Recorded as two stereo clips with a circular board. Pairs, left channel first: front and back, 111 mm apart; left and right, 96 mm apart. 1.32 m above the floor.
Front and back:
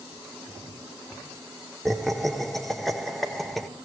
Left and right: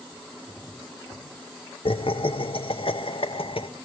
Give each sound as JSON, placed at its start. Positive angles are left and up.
{"t": 1.9, "sound": "laughter", "azimuth_deg": 90, "distance_m": 0.8}